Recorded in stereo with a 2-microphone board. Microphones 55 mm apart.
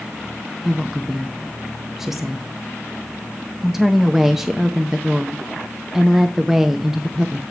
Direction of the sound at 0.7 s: 5° right (ahead or behind).